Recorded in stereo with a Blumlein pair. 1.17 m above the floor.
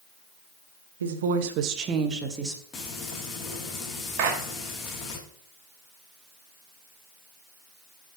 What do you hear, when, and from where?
1.0 s a woman speaking: 70° right, 1.0 m; by 2.6 s 5° right, 1.5 m
2.7 s frying: 15° left, 2.5 m
4.2 s a clap: 45° right, 1.5 m